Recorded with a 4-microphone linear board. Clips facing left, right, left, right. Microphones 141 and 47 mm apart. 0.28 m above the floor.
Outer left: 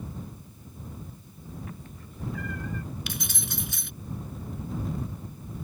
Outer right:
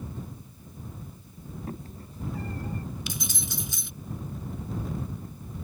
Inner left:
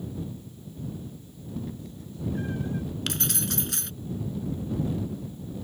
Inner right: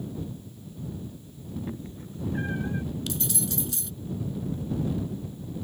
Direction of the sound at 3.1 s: 65° left (ahead or behind).